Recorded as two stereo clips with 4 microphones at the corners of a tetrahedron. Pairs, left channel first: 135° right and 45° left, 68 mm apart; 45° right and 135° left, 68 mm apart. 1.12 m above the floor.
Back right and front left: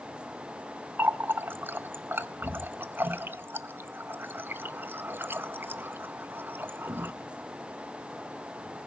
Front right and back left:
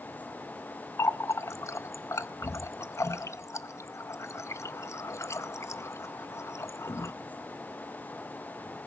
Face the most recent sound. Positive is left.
turn(degrees=-10)